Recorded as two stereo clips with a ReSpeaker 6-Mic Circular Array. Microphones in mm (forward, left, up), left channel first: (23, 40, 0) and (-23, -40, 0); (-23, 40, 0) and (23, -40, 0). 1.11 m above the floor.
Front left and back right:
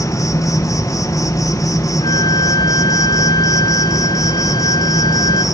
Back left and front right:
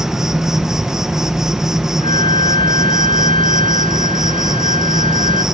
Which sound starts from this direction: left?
A flute, at 2.0 s.